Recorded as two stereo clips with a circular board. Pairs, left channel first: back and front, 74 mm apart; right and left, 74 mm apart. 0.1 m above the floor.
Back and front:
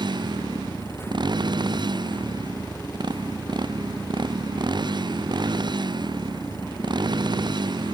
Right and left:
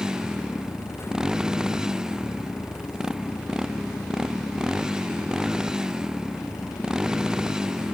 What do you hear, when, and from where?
0.0 s a motorcycle: 10° left